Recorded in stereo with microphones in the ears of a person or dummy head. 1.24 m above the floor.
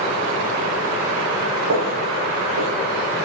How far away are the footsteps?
About 7.5 m.